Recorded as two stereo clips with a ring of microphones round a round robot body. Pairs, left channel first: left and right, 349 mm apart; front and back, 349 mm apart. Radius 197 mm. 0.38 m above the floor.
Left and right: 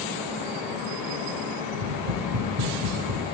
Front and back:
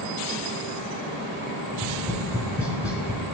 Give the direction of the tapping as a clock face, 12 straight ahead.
3 o'clock.